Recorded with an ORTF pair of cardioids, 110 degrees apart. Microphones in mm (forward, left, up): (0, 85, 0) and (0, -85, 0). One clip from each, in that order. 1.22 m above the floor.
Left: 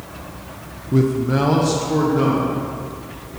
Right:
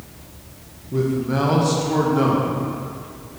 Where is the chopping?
No chopping in this recording.